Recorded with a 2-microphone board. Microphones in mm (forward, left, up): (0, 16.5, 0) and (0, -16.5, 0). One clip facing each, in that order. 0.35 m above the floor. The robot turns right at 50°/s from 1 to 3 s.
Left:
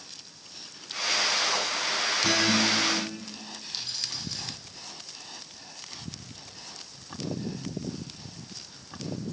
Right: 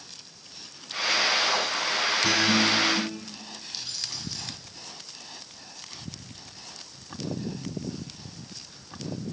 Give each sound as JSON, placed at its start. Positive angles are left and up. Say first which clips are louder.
{"t": 2.2, "sound": "a guitar", "louder": "right 1 dB", "azimuth_deg": 180, "distance_m": 5.5}
{"t": 3.7, "sound": "keys jangling", "louder": "left 1 dB", "side_deg": 20, "distance_m": 8.5}